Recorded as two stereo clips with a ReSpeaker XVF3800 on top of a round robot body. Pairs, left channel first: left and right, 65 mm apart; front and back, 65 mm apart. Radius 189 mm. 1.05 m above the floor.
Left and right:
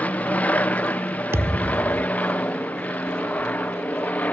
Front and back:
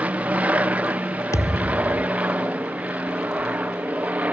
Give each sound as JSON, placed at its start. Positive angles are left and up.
{"t": 0.0, "sound": "an aircraft", "azimuth_deg": 135}
{"t": 1.3, "sound": "a thud", "azimuth_deg": -40}